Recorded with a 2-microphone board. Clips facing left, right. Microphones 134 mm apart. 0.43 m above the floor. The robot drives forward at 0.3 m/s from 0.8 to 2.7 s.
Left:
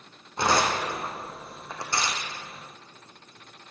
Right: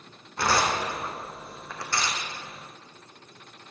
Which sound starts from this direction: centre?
Tearing paper, at 0.4 s.